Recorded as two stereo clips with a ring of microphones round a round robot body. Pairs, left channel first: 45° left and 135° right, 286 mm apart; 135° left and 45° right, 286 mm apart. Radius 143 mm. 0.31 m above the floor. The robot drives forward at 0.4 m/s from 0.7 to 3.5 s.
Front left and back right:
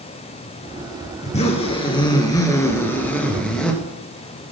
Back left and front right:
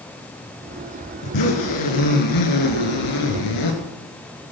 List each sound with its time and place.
1.2 s a zipper: 110° left, 2 m; by 3.8 s 130° left, 2.5 m